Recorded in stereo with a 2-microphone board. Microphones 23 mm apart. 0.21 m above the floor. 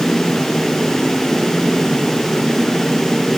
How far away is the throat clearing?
No throat clearing in this recording.